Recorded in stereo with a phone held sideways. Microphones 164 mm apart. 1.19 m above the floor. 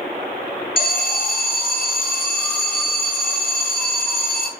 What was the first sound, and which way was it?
An alarm, 65° left (ahead or behind).